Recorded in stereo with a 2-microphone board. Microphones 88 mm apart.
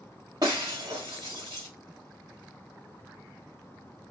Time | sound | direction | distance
0.4 | breaking glass | 60° right (ahead or behind) | 1.6 m